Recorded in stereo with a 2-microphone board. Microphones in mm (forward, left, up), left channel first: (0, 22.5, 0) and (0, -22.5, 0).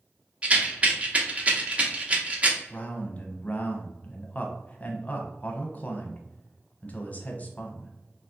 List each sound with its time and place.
0.4 s a rattle: 30° right (ahead or behind), 0.8 m
2.7 s a man speaking: 35° left (ahead or behind), 0.8 m